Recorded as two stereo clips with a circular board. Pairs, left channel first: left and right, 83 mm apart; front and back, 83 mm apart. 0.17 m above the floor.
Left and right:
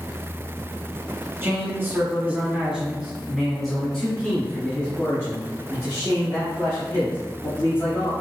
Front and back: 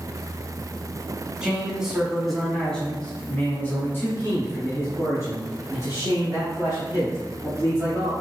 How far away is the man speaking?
About 1.5 m.